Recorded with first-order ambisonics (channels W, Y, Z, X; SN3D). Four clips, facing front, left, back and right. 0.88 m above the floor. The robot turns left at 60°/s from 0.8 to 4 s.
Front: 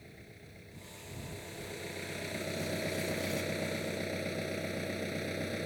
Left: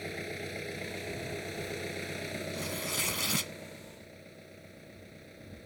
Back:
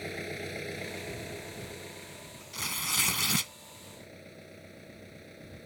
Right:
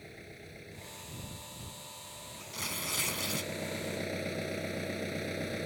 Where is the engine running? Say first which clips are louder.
Left 11 dB, back 16 dB; 145° left; by 5.7 s 50° right.